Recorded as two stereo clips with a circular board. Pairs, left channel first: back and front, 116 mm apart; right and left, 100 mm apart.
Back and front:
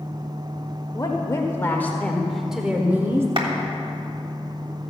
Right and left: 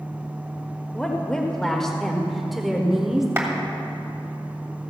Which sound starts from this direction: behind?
A woman speaking, at 0.9 s.